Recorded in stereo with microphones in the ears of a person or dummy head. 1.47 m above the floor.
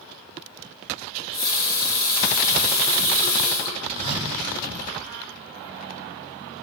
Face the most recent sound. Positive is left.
turn(degrees=-30)  # may be behind; listen again after turning